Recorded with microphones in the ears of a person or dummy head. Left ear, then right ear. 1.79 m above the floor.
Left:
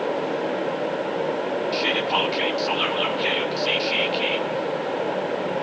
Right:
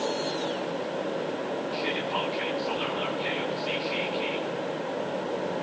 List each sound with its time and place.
1.7 s whispering: 35° left (ahead or behind), 0.6 m